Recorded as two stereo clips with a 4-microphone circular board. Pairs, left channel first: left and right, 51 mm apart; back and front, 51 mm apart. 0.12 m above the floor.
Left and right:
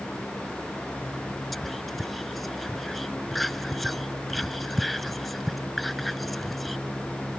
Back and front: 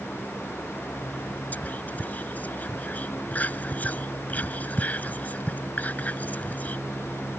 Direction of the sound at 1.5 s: 175° left.